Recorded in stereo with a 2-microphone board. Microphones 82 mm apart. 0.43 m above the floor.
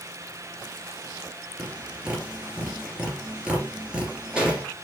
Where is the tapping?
10° right (ahead or behind), 2.5 m.